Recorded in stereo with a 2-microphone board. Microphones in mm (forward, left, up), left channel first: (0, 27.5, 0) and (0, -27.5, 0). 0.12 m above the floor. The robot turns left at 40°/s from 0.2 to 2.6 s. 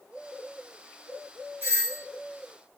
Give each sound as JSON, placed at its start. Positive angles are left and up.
{"t": 1.6, "sound": "a doorbell", "side_deg": -40, "distance_m": 2.5}